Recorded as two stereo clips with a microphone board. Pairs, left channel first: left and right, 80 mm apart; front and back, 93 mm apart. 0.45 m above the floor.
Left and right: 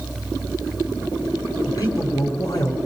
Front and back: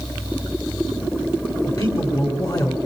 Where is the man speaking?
45° left, 5 m.